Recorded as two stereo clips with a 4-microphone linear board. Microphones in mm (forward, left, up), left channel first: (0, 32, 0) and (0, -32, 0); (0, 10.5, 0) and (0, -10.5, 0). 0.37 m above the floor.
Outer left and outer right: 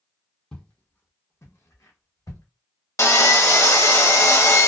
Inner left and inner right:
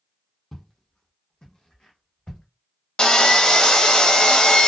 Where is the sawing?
50° left (ahead or behind), 0.6 m.